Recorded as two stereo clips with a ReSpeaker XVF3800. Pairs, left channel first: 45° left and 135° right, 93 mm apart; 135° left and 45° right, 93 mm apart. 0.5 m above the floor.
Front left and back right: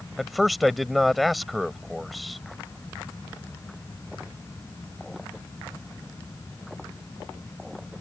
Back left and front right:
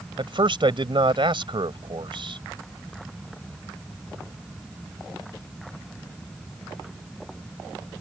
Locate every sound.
0.2 s a man speaking: 45° right